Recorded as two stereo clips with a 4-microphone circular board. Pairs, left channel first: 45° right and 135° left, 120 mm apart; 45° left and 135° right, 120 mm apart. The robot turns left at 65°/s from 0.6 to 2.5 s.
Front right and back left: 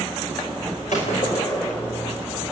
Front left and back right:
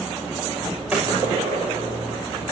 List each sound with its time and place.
0.9 s a gunshot: 55° right, 8 m; by 2.2 s 140° right, 8 m